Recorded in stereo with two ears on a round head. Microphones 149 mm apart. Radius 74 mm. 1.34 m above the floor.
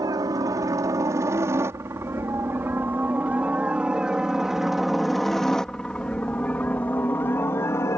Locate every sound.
0.0 s a helicopter: 20° right (ahead or behind); by 8.0 s 20° left (ahead or behind)